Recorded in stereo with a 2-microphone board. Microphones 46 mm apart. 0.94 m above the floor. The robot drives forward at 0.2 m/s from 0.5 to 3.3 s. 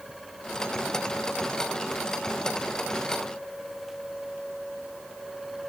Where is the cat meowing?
No cat meowing in this recording.